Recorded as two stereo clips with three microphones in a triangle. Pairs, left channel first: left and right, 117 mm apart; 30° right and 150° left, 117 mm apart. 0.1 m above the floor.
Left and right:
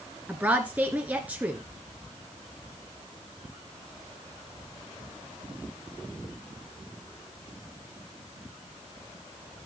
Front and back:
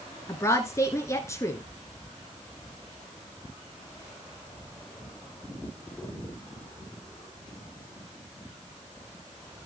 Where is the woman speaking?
35° right, 1.1 m.